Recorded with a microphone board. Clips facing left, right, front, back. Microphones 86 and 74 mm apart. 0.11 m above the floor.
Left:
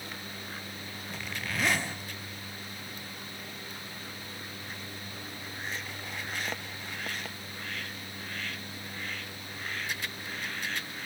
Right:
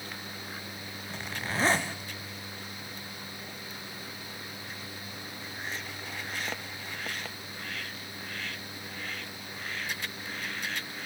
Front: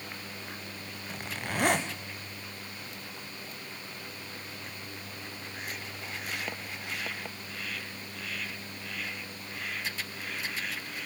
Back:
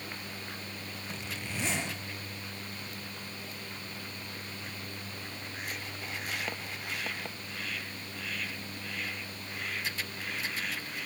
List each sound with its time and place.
1.1 s a zipper: 30° right, 3.5 m